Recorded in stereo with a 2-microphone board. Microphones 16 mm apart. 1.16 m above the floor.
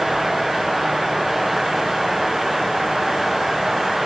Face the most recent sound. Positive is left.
No sound to turn to.